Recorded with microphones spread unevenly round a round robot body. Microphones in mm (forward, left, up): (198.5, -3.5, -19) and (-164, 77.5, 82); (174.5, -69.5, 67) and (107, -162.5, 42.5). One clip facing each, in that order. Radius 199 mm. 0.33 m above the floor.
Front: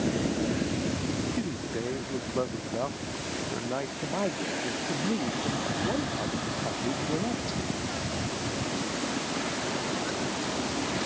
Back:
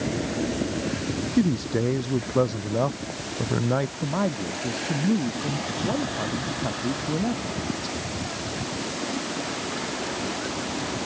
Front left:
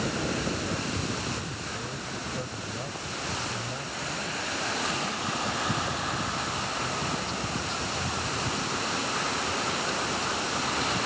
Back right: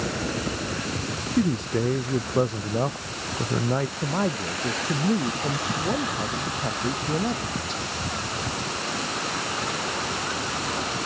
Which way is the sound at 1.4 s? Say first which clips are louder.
Back 9 dB, back right 13 dB; 160° right.